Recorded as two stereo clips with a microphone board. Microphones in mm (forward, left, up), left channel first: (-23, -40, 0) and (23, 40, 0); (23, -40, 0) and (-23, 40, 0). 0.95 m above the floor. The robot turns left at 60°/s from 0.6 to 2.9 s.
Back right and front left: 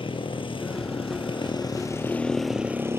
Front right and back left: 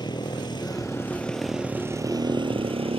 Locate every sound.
0.0 s a motorcycle: 100° right; by 3.0 s 125° left